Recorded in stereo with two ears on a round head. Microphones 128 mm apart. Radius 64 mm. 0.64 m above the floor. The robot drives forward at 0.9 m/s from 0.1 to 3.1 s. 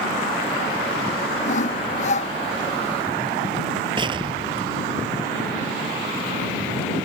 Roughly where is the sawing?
Left.